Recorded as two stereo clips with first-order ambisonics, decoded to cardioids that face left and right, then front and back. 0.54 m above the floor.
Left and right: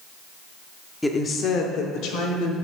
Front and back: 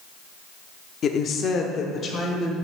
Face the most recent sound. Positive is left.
turn(degrees=65)